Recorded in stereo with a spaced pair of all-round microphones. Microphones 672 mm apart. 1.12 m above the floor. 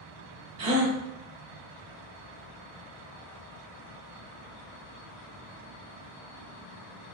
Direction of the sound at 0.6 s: 55° right (ahead or behind).